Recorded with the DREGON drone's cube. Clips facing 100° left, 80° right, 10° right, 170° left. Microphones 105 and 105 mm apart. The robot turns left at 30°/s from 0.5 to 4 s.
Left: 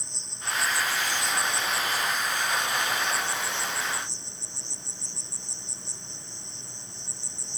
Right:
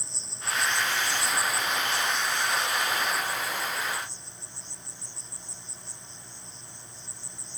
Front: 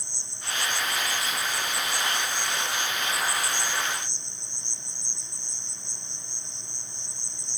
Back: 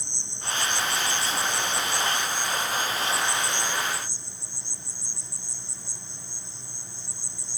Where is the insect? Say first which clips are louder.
Even, back 3 dB; 170° right; by 7.6 s 85° left.